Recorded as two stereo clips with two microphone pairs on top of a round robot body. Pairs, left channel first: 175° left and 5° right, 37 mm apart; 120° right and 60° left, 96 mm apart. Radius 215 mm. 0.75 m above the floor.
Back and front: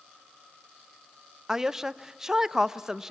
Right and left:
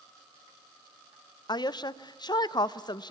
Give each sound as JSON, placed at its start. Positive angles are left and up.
{"t": 1.5, "sound": "a woman speaking", "azimuth_deg": -85, "distance_m": 0.9}